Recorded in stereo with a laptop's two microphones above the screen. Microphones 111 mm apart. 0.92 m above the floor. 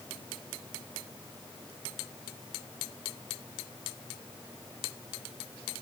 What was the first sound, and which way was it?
Only background noise.